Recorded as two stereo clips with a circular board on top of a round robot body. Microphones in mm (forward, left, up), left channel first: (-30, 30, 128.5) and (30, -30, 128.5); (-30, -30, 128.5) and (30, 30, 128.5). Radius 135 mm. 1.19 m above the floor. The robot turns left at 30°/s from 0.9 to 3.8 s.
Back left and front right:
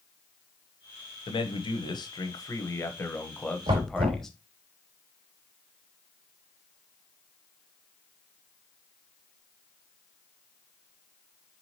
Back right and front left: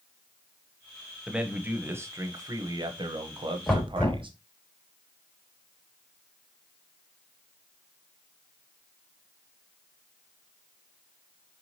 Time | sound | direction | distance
1.3 | a man speaking | 130° left | 1.1 m
3.7 | knocking | 60° right | 2 m